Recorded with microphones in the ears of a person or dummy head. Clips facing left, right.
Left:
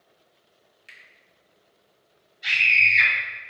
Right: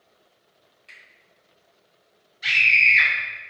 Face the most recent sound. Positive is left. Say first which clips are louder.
# right 2 dB
turn(degrees=-65)  # may be behind; listen again after turning